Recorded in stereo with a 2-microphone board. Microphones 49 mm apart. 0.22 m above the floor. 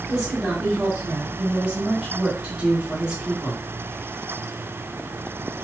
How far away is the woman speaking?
About 1.7 m.